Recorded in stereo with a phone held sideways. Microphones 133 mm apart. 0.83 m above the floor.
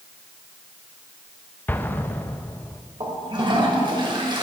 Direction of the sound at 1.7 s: 15° left (ahead or behind).